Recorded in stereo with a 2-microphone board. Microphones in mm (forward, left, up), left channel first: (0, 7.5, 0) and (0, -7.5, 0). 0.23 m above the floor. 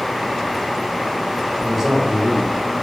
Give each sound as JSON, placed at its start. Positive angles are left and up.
{"t": 1.6, "sound": "a man speaking", "side_deg": -25, "distance_m": 1.2}